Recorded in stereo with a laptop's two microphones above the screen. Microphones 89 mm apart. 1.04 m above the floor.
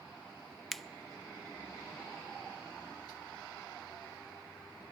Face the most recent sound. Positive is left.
turn(degrees=5)  # may be behind; listen again after turning